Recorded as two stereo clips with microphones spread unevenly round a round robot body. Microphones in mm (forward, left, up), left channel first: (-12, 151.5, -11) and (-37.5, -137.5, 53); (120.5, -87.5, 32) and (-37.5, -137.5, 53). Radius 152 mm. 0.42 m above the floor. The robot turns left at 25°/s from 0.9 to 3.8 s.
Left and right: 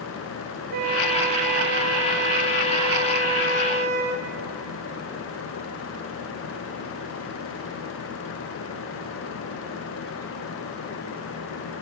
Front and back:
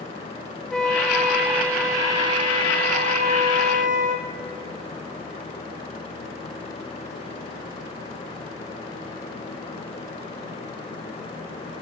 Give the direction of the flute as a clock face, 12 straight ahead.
2 o'clock.